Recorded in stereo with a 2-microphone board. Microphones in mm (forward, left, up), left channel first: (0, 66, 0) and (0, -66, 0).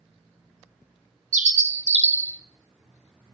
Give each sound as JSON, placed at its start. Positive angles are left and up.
{"t": 1.3, "sound": "a bird", "side_deg": -70, "distance_m": 0.6}